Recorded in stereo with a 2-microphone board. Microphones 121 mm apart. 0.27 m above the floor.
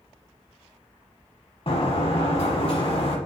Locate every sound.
1.7 s a sliding door: 50° left (ahead or behind), 0.9 m